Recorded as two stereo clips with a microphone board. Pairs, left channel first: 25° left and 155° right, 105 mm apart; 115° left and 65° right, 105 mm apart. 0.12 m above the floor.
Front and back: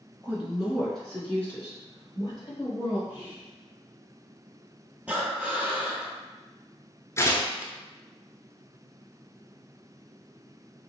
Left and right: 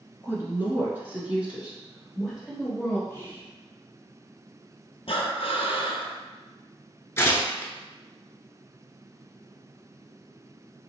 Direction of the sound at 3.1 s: 150° left.